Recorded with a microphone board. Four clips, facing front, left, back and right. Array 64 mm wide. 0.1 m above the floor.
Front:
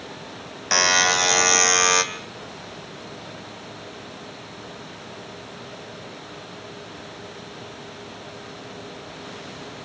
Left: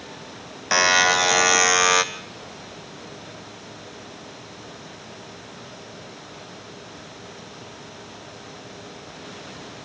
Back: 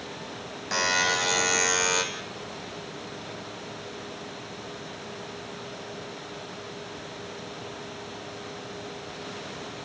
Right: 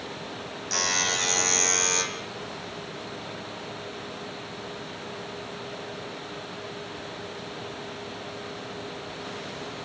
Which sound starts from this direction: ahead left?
A buzzer, at 0.7 s.